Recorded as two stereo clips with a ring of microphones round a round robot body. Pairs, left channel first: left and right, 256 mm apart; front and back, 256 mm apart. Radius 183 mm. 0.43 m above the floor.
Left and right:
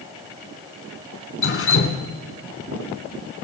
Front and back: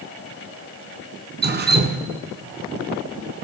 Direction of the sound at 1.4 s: 130° left.